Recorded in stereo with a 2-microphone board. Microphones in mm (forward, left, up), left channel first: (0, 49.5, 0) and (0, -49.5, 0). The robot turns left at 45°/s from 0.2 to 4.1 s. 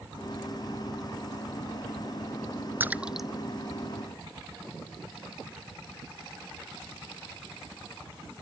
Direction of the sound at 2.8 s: 20° right (ahead or behind).